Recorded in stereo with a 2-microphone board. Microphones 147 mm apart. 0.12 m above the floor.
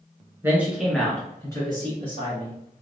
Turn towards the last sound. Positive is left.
turn(degrees=45)  # may be behind; listen again after turning